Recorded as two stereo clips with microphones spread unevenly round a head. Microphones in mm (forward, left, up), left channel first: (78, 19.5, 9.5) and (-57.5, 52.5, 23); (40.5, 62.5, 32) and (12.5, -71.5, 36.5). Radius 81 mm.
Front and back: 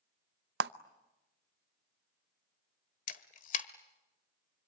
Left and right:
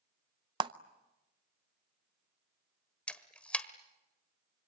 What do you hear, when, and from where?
0.6 s a clap: 165° right, 0.6 m
3.1 s a camera shutter: 5° right, 1.3 m